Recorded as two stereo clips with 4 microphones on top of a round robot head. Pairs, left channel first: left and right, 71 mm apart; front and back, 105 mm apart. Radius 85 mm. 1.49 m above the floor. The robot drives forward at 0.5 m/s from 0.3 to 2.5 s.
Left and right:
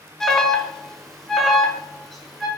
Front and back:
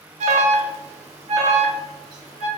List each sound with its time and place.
0.2 s an alarm: 170° left, 0.5 m; by 2.5 s 175° left, 1.6 m